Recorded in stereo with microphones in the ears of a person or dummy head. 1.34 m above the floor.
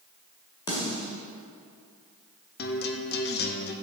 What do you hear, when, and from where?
0.7 s a snare drum: 25° left (ahead or behind), 1.7 m
2.6 s a guitar: 45° left (ahead or behind), 0.7 m